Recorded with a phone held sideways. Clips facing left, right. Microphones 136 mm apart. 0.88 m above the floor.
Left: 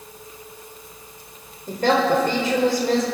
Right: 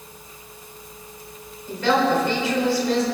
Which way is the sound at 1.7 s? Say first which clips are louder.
Left 1 dB; 50° left (ahead or behind).